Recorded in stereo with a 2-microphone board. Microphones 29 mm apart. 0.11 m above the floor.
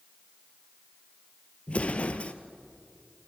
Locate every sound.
1.7 s an explosion: 45° left (ahead or behind), 1.1 m